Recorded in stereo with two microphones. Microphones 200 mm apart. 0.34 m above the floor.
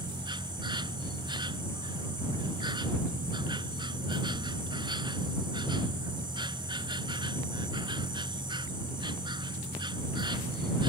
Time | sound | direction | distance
0.0 | an insect | 25° right (ahead or behind) | ?